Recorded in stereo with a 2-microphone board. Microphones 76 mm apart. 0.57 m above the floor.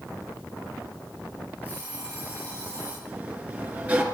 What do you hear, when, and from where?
1.6 s an alarm clock: 20° right (ahead or behind), 8.5 m
3.1 s a sliding door: 20° right (ahead or behind), 3 m